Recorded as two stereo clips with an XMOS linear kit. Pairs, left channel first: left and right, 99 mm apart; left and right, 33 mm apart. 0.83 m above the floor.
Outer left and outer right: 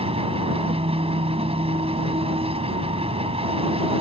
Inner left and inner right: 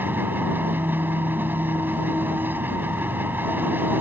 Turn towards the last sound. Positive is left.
turn(degrees=-85)